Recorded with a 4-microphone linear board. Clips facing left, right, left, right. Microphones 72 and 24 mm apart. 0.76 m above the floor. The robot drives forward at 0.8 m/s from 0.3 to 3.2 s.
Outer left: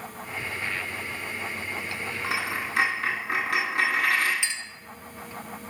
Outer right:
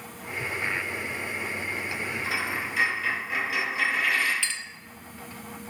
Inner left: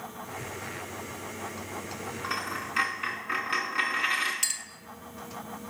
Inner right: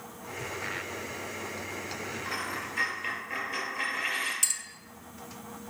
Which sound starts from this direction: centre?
A clink, at 4.4 s.